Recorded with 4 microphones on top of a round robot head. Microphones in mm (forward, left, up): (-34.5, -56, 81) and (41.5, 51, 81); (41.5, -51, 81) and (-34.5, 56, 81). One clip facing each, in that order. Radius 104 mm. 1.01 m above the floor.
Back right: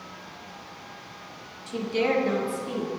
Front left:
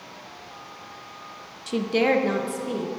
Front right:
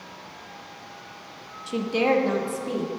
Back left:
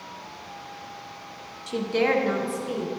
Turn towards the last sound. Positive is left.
turn(degrees=5)